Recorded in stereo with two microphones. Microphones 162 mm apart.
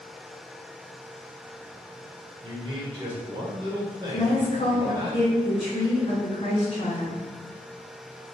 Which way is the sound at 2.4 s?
30° right (ahead or behind).